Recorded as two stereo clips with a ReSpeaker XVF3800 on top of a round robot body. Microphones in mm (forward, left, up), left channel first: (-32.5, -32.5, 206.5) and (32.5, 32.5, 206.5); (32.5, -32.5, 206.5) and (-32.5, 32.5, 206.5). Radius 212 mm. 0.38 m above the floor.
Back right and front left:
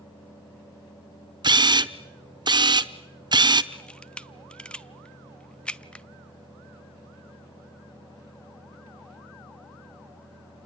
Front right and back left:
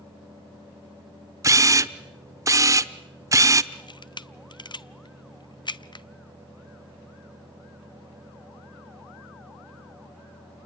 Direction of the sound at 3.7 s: 55° right.